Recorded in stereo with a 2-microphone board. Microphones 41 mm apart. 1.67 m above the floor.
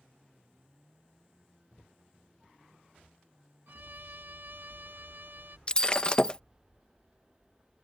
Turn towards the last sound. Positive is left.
turn(degrees=25)  # may be behind; listen again after turning